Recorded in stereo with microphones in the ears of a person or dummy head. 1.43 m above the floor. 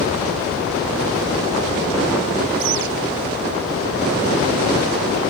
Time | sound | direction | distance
2.6 | a bird | 65° right (ahead or behind) | ?